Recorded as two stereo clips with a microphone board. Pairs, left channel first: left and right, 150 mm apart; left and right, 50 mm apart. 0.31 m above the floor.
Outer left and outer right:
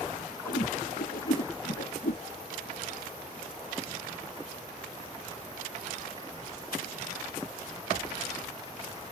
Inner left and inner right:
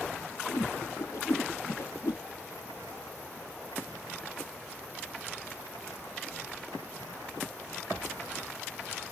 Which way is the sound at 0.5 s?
85° left.